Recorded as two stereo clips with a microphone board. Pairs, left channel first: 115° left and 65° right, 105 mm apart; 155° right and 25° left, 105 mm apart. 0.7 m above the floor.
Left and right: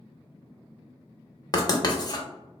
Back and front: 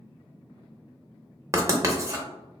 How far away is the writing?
About 0.5 m.